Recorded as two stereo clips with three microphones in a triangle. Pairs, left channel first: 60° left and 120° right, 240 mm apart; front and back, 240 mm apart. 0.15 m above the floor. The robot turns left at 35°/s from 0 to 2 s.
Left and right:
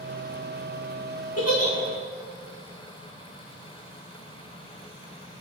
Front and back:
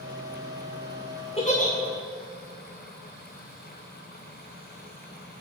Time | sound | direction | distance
1.4 | a giggle | 65° left | 2 m